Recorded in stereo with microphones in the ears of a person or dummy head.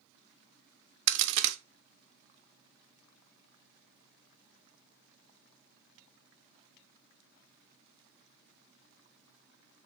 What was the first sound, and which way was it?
A crack, 70° right (ahead or behind).